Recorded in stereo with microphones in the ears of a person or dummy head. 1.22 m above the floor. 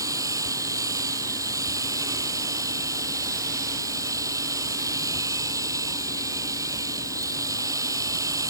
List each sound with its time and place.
0.0 s a machine running: 15° right (ahead or behind)